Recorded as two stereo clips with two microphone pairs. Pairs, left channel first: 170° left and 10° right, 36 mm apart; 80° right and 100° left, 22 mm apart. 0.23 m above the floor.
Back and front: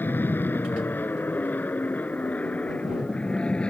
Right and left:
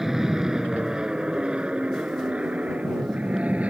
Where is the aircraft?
175° left; by 3.7 s 110° left.